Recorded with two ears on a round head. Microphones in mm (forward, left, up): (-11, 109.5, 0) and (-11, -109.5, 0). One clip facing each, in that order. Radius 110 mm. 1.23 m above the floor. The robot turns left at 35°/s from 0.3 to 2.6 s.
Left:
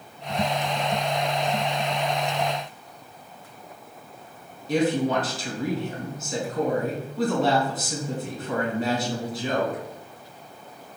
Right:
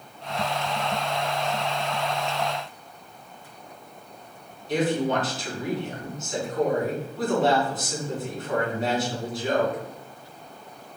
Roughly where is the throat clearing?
I don't hear throat clearing.